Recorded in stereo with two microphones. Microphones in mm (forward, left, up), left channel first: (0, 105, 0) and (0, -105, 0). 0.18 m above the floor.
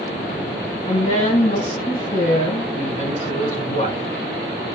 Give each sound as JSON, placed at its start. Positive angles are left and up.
{"t": 0.9, "sound": "a woman speaking", "side_deg": 35, "distance_m": 1.5}